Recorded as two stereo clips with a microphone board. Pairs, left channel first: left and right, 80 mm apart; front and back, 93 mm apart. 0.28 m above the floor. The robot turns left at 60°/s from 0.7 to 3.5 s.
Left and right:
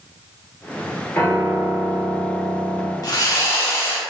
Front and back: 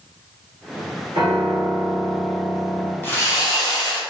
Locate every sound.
1.1 s a piano: 155° left, 2.0 m; by 2.9 s 50° left, 2.0 m
3.0 s sawing: 60° left, 1.3 m; by 4.0 s 35° left, 1.3 m